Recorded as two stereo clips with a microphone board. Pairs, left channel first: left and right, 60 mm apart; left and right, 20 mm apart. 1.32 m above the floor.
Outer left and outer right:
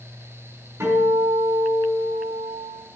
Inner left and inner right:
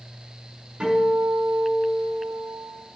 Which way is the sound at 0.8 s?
50° right (ahead or behind).